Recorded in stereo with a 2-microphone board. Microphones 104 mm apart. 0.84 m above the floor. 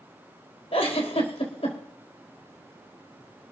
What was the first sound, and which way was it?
A giggle, 75° left (ahead or behind).